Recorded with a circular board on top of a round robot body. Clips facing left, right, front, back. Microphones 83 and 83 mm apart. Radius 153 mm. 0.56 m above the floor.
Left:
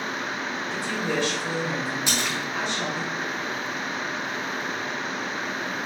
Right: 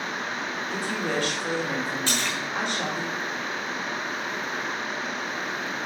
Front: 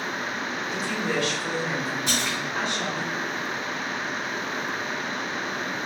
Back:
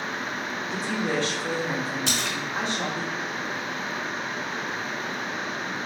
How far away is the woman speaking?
About 2.5 m.